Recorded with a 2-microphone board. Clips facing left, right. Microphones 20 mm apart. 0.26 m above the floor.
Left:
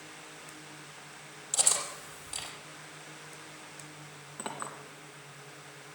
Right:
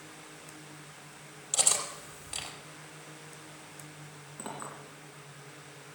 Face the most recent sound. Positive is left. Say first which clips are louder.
# left 2 dB
turn(degrees=30)  # may be behind; listen again after turning